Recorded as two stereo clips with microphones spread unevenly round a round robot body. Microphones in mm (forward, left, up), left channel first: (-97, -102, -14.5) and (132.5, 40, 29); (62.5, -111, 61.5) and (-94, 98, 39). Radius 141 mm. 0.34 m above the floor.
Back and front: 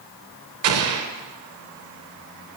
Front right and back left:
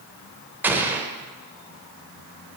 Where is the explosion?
50° left, 0.7 m.